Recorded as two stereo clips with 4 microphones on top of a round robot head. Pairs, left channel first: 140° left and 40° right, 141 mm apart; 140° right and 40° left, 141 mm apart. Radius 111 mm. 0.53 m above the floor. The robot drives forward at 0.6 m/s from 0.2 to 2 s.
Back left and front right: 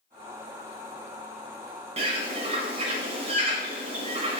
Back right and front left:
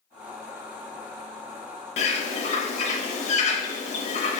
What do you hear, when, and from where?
2.0 s a bird: 90° right, 0.6 m; by 4.4 s 95° right, 0.6 m